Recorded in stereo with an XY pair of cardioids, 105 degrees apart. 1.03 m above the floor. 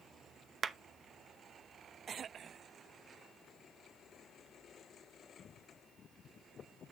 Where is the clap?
40° right, 0.7 m.